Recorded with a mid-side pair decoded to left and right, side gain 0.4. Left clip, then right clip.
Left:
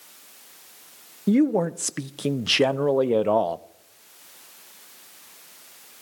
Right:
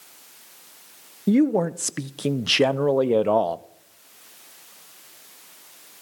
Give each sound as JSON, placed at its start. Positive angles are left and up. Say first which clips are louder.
{"t": 1.3, "sound": "a man speaking", "louder": "right 1 dB", "azimuth_deg": -5, "distance_m": 0.6}